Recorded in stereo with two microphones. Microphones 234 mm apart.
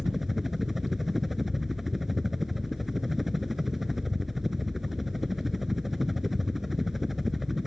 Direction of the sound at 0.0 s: Centre (ahead or behind).